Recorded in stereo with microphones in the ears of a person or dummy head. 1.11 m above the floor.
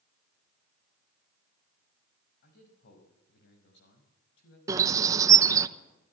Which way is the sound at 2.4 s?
60° left (ahead or behind).